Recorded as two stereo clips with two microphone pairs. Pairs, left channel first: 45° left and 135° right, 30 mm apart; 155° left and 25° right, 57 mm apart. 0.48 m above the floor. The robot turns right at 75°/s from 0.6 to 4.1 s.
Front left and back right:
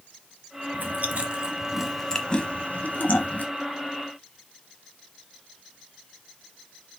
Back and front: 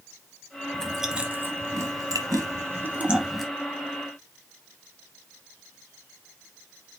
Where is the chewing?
135° right, 0.8 m; by 3.5 s 70° left, 0.8 m.